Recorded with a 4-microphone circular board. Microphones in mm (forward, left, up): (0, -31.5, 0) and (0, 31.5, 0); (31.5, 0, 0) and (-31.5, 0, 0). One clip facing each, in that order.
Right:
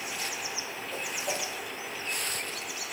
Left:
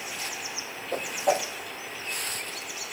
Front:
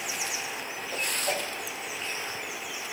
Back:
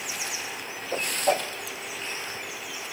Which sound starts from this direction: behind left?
A whoosh, at 0.9 s.